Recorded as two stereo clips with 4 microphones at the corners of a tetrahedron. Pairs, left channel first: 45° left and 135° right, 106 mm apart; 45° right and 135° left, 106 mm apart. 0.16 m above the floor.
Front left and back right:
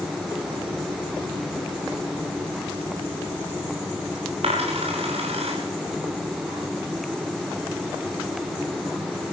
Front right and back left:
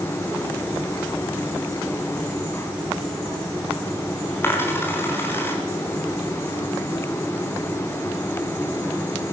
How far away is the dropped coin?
About 7.5 m.